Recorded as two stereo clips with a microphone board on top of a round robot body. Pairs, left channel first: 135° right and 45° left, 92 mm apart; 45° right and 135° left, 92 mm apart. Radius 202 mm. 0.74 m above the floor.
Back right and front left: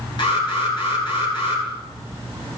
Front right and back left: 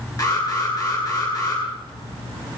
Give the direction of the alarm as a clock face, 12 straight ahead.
3 o'clock.